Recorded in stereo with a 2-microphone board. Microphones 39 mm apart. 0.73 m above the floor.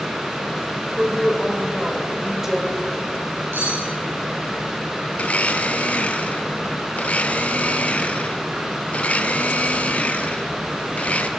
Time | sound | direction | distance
1.0 | a woman speaking | 10° right (ahead or behind) | 3 m
3.5 | cutlery clinking | 80° right | 7 m
5.2 | a blender | 35° left (ahead or behind) | 1.0 m